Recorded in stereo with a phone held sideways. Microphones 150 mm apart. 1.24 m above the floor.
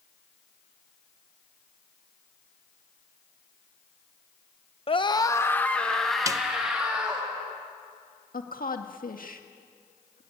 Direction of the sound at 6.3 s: 20° right (ahead or behind).